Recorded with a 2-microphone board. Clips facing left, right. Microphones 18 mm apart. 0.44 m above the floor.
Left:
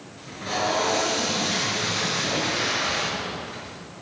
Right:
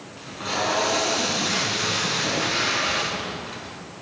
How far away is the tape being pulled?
About 5 m.